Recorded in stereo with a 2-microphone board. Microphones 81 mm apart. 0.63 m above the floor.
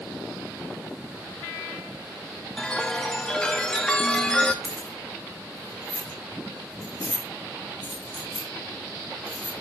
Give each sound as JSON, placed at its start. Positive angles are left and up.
{"t": 2.6, "sound": "a chime", "side_deg": 10, "distance_m": 0.7}
{"t": 4.6, "sound": "keys jangling", "side_deg": 60, "distance_m": 5.0}